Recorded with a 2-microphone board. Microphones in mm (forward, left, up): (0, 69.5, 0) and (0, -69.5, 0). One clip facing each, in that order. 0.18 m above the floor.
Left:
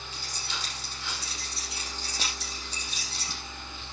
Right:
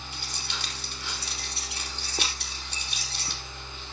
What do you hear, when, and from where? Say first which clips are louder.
0.1 s keys jangling: even; 65° right (ahead or behind), 4 m